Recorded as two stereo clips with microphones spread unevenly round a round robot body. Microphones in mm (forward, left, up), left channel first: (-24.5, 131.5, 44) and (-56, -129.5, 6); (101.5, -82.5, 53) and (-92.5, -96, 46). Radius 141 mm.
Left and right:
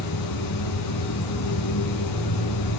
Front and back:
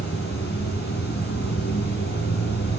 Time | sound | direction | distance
0.0 | running water | 60° left | 5 m